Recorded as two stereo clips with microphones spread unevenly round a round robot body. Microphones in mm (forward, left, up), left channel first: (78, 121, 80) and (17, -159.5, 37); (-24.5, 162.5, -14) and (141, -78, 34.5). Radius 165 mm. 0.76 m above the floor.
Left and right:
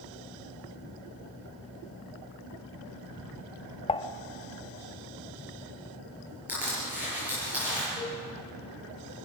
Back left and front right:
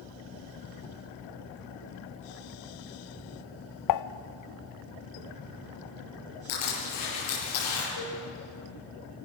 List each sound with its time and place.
3.9 s dishes clattering: 150° left, 0.5 m
6.5 s crushing: 170° left, 7 m
8.0 s a cowbell: 165° left, 8 m